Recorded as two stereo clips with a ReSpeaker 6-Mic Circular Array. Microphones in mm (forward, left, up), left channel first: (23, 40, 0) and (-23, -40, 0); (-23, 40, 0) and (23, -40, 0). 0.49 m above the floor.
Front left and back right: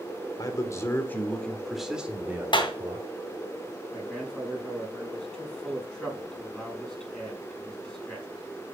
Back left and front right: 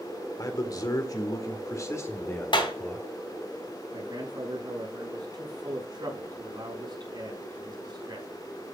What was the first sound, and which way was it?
A man speaking, 90° left.